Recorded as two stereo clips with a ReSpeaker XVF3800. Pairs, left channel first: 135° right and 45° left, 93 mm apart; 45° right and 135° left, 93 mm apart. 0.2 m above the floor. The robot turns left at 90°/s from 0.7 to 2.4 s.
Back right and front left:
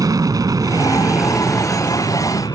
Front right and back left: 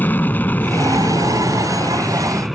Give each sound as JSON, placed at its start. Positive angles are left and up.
{"t": 0.0, "sound": "an aircraft", "azimuth_deg": 20}